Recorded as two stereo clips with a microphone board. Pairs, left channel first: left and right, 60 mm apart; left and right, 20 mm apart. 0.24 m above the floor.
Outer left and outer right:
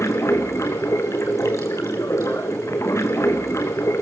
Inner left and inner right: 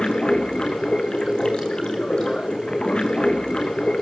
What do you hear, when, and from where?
0.0 s running water: 55° left (ahead or behind), 2.0 m